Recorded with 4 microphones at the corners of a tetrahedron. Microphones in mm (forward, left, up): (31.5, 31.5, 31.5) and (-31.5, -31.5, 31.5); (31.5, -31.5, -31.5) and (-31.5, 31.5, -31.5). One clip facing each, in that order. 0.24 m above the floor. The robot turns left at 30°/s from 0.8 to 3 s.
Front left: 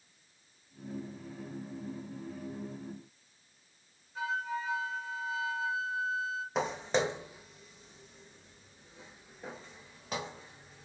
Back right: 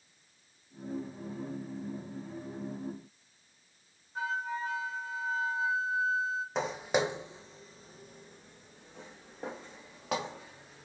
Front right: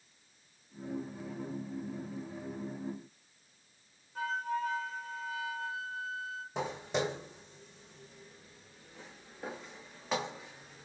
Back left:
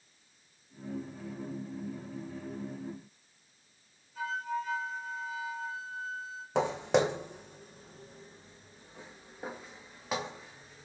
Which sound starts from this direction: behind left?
Footsteps, at 6.5 s.